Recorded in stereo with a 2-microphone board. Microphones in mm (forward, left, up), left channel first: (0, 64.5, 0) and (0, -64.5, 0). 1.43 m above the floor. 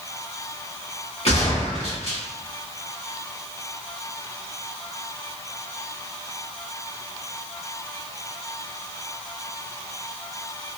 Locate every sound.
1.2 s a gunshot: 60° left (ahead or behind), 1.2 m